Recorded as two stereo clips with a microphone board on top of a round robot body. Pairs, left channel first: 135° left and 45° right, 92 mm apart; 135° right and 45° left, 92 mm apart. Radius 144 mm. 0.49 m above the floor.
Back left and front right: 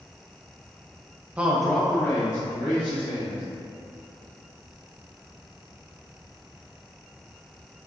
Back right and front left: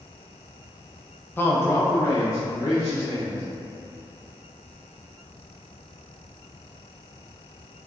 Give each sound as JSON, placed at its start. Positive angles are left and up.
{"t": 1.4, "sound": "a man speaking", "azimuth_deg": -100, "distance_m": 0.7}